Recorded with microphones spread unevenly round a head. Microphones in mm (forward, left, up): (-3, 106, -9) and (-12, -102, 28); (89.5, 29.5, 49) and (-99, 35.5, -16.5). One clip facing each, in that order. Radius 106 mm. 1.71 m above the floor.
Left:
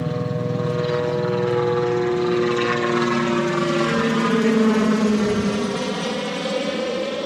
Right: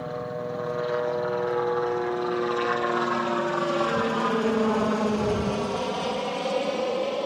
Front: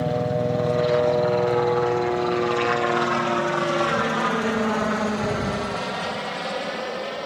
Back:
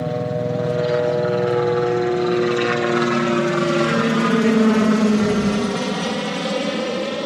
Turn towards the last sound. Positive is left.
turn(degrees=150)